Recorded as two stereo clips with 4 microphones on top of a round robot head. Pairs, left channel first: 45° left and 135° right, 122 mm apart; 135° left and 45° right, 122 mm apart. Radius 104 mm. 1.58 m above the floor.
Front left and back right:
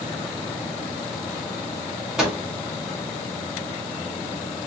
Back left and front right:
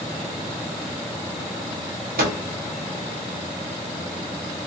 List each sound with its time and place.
2.2 s a microwave: 50° right, 0.9 m